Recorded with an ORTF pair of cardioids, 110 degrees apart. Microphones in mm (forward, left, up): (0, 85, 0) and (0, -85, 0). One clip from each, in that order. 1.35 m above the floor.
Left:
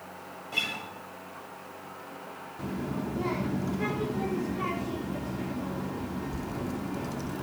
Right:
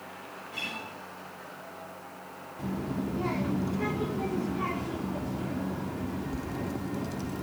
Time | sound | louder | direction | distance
0.5 | a guitar | left 5 dB | 55° left | 7.5 m
2.6 | a child speaking | even | straight ahead | 3 m